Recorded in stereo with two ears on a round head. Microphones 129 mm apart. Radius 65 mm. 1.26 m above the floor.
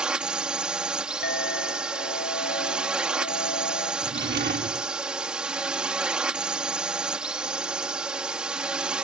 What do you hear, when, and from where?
0.0 s a drone: 5° right (ahead or behind)
1.2 s a clink: 80° left
4.0 s a drawer: 70° right (ahead or behind)